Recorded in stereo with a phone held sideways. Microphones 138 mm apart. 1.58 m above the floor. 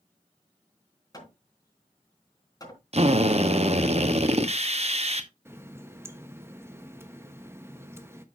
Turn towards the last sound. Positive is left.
turn(degrees=-15)  # may be behind; listen again after turning